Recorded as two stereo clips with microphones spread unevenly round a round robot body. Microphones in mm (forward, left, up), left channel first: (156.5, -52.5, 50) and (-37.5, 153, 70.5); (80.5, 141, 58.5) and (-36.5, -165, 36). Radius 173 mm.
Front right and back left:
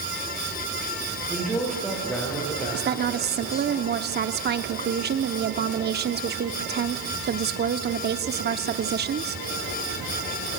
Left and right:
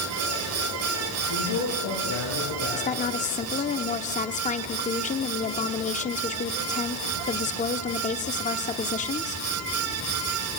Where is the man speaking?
45° left, 9.5 m; by 3.7 s 30° left, 9.5 m.